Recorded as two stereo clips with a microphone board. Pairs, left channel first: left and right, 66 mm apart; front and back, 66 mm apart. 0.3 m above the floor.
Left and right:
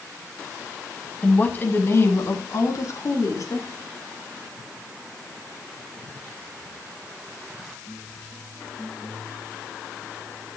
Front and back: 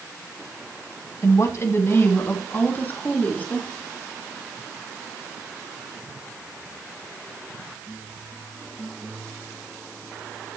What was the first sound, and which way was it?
A woman speaking, 25° left.